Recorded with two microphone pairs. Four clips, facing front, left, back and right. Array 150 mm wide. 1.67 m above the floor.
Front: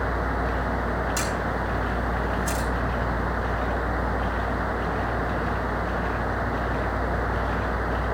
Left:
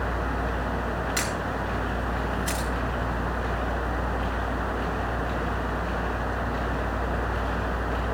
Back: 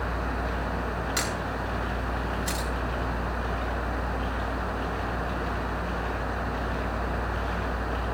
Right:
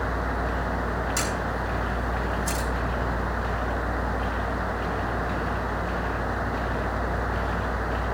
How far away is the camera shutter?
About 2.5 m.